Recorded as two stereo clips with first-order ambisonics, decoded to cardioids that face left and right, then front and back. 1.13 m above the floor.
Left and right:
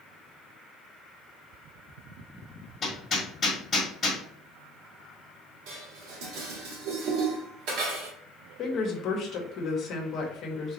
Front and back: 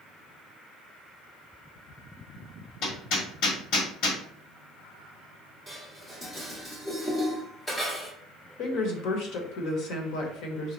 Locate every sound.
2.8 s hammering: 20° left, 1.5 m
5.7 s dishes clattering: 75° right, 1.4 m
8.6 s a woman speaking: 35° left, 1.2 m